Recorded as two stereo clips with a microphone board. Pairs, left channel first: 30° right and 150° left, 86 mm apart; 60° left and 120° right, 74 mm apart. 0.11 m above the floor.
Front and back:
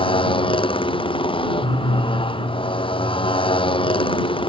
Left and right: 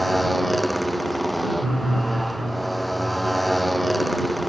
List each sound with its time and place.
0.0 s a motorcycle: 30° right